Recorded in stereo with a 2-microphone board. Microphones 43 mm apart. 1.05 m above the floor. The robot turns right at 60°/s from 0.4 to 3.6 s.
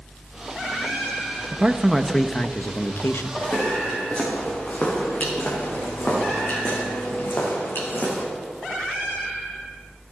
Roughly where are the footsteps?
Left.